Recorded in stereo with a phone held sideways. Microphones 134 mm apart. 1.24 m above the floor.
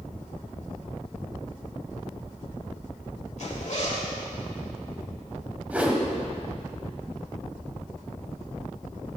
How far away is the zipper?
About 3 m.